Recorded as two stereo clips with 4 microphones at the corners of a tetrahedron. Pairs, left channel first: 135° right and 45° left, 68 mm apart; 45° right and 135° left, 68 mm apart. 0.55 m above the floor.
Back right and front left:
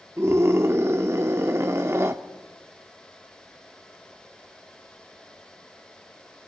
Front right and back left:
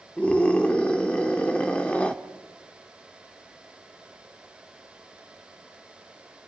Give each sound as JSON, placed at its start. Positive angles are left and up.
{"t": 0.2, "sound": "a scream", "azimuth_deg": 20, "distance_m": 1.1}